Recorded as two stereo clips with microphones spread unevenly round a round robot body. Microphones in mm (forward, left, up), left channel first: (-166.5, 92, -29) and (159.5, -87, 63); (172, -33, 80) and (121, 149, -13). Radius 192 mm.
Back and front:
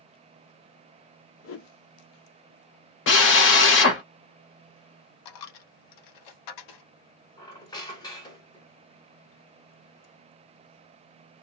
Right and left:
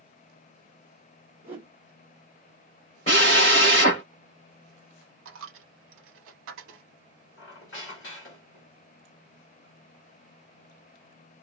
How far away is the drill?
About 0.8 m.